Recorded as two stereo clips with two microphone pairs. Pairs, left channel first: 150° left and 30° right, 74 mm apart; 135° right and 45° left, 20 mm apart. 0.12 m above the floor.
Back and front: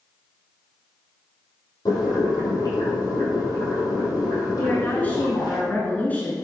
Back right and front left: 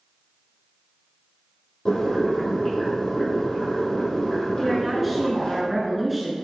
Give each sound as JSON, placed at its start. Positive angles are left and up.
{"t": 1.9, "sound": "boiling", "azimuth_deg": 175, "distance_m": 3.5}
{"t": 4.6, "sound": "a woman speaking", "azimuth_deg": 130, "distance_m": 1.7}